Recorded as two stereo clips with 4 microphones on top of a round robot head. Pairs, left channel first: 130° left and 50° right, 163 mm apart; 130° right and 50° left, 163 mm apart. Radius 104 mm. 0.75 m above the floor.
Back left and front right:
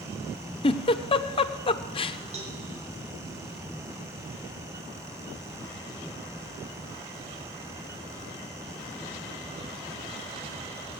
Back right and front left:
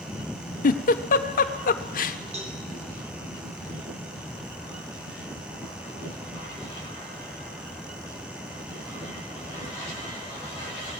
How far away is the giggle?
About 0.8 m.